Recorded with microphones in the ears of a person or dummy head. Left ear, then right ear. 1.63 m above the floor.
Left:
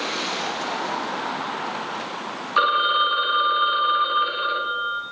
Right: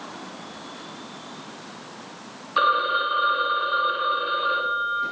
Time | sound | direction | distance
2.6 | a phone ringing | 10° left (ahead or behind) | 0.7 m